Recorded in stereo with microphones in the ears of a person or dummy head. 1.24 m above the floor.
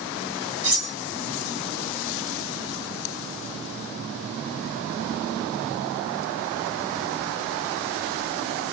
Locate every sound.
0.6 s cutlery clinking: 50° right (ahead or behind), 0.5 m